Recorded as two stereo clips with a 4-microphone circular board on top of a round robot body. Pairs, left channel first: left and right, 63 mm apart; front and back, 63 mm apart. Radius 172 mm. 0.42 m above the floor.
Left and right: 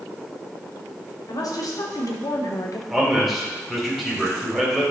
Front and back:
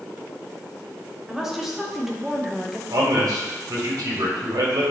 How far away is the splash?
I don't hear a splash.